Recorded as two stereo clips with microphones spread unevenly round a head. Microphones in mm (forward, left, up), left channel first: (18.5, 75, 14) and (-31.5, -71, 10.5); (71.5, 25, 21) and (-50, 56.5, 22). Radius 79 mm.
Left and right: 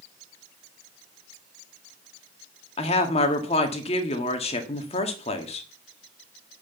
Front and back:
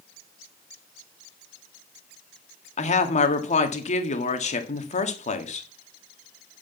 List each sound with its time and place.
2.8 s a woman speaking: 15° left, 1.8 m